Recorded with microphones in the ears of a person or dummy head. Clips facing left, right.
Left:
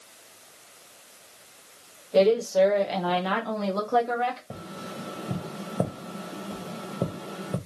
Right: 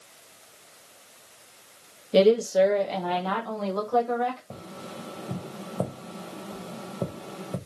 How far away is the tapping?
About 0.6 m.